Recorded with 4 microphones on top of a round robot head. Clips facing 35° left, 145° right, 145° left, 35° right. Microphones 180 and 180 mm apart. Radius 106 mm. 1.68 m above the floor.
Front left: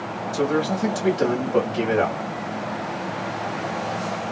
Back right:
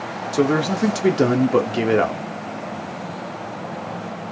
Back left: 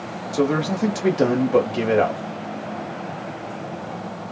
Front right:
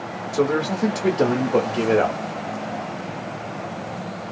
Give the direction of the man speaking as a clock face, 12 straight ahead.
5 o'clock.